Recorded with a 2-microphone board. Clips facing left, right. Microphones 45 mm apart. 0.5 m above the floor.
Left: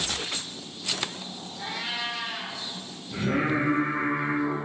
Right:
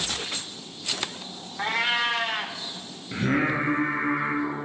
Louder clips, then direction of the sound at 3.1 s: Right 1 dB; 55° right (ahead or behind).